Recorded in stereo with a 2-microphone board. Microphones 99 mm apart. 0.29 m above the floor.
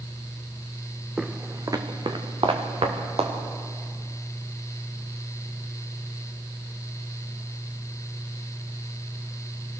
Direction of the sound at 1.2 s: 5° right (ahead or behind).